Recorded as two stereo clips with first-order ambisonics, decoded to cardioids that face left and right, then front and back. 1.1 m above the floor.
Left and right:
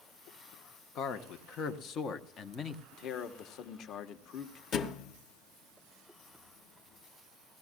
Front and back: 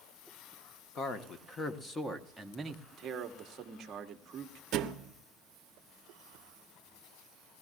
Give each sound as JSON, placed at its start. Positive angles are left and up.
{"t": 0.9, "sound": "a man speaking", "azimuth_deg": 50, "distance_m": 1.2}
{"t": 2.9, "sound": "a man speaking", "azimuth_deg": 130, "distance_m": 1.0}
{"t": 4.7, "sound": "a thud", "azimuth_deg": 145, "distance_m": 0.8}